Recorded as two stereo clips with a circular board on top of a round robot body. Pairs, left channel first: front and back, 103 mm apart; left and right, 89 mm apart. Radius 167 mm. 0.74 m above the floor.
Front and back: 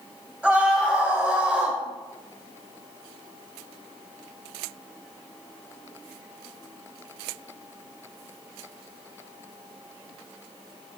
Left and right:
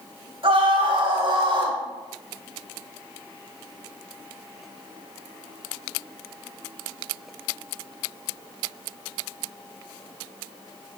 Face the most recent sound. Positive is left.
turn(degrees=-100)